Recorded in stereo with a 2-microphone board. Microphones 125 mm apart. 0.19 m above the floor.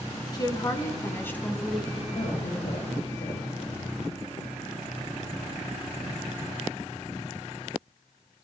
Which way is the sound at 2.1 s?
70° left (ahead or behind).